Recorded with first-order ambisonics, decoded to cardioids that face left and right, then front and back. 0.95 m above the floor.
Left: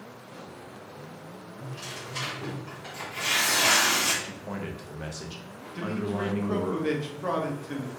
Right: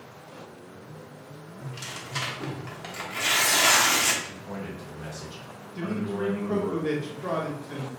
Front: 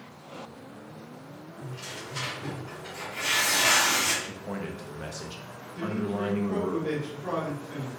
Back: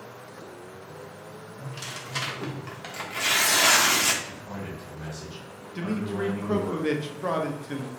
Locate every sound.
1.6 s tearing paper: 150° right, 1.1 m
4.2 s a man speaking: 50° left, 0.7 m
5.8 s a man speaking: 160° left, 0.7 m